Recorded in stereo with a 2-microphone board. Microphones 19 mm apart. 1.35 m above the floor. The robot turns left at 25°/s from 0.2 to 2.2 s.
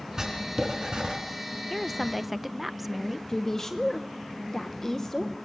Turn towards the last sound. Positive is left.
turn(degrees=20)  # may be behind; listen again after turning